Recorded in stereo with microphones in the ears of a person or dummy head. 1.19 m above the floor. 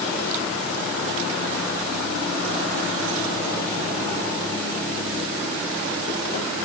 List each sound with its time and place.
Only background noise.